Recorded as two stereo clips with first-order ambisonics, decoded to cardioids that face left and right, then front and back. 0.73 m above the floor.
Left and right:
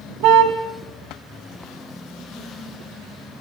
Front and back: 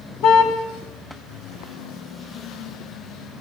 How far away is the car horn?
About 2.5 m.